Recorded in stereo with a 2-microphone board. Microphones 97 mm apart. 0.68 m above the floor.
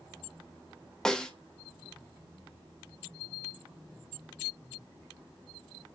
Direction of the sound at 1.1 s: 5° left (ahead or behind).